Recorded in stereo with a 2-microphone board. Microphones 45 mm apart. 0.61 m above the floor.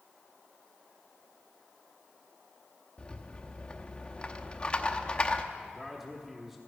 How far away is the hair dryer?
I don't hear a hair dryer.